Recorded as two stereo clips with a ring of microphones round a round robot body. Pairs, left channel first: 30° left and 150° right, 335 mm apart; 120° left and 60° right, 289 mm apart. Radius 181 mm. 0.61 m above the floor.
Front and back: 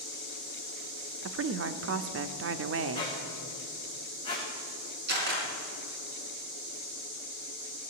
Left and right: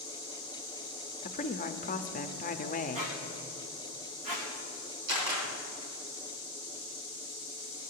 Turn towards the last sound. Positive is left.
turn(degrees=-90)